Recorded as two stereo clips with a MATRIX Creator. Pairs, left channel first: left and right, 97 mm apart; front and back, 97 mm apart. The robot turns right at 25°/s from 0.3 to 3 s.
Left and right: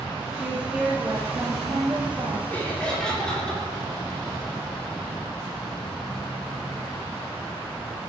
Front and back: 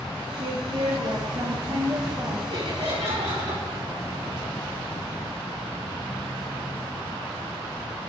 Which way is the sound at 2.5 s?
160° left.